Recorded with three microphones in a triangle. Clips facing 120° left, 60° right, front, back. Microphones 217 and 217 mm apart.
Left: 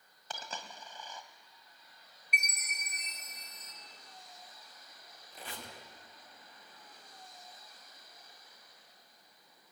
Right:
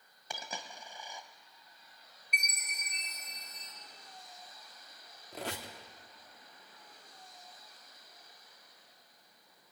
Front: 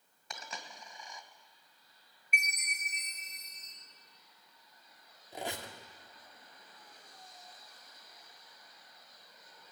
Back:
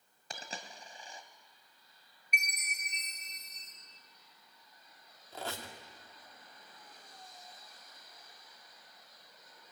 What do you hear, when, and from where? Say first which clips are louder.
0.3 s a dropped coin: right 1 dB, back 1 dB; 135° right, 1.9 m
2.3 s a chime: left 2 dB, front 1 dB; 40° left, 4 m
5.3 s a squeak: right 7 dB, front 2 dB; 75° right, 2.5 m